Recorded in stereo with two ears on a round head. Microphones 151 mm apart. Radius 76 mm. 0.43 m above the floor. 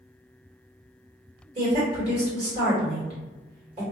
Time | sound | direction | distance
1.6 | a woman speaking | 40° right (ahead or behind) | 1.7 m